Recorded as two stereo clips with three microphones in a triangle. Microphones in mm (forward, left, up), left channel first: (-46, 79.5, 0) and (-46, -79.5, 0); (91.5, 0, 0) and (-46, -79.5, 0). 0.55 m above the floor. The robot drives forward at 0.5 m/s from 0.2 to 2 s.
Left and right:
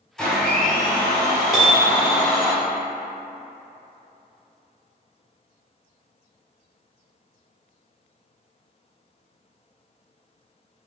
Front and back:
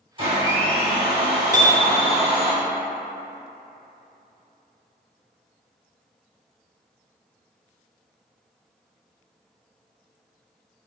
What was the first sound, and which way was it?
A blender, 175° left.